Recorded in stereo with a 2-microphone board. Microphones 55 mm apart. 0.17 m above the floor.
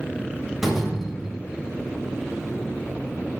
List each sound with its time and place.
0.6 s a door slam: 10° right (ahead or behind), 6.5 m